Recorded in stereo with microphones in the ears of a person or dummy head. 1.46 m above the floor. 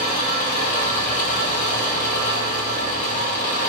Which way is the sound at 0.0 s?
45° left (ahead or behind).